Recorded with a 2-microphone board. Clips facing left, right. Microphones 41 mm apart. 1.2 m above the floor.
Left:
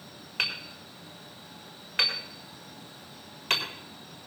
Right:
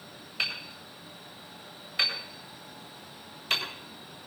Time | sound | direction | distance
0.4 | hammering | 55° left (ahead or behind) | 4 m